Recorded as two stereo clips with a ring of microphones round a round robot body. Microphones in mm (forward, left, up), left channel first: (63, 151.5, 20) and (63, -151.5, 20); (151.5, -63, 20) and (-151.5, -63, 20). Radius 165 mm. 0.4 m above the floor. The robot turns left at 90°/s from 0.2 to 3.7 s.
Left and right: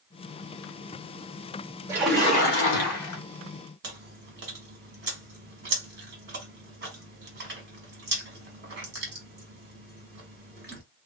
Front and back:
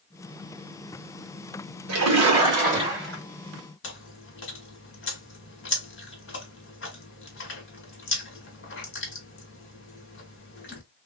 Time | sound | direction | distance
1.9 | a splash | 165° right | 1.3 m
3.8 | chewing | 40° right | 2 m